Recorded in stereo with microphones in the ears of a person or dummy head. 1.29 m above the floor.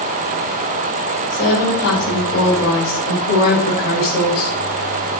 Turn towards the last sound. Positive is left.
turn(degrees=60)  # may be behind; listen again after turning